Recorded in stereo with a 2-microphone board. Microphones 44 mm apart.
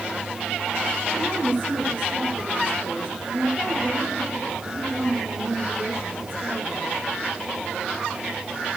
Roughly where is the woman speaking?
Right.